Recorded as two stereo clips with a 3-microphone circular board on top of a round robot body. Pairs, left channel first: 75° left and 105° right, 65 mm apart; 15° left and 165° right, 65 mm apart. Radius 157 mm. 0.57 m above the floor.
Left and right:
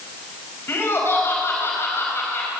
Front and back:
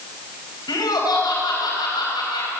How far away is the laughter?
About 5 m.